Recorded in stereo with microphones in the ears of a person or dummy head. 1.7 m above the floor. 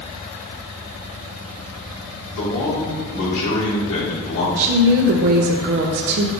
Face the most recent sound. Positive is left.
turn(degrees=-45)  # may be behind; listen again after turning